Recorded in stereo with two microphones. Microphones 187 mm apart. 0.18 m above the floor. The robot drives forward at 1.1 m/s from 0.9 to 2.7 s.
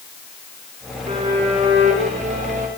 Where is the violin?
35° right (ahead or behind), 8 m; by 2.7 s 40° right (ahead or behind), 6.5 m.